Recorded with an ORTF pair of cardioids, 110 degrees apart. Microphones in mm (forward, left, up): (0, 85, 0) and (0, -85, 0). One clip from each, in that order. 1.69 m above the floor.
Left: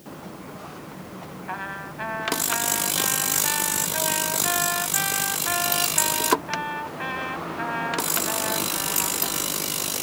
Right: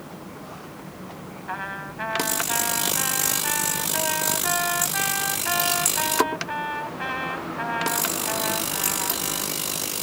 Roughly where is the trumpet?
Ahead.